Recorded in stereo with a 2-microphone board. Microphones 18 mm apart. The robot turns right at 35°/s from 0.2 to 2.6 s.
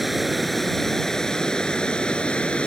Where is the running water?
5° right; by 2.7 s 75° left.